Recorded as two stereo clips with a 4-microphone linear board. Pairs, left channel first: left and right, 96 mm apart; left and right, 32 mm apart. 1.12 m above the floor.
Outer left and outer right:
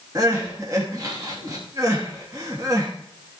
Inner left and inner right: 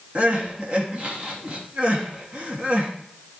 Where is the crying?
35° right (ahead or behind), 2.5 m.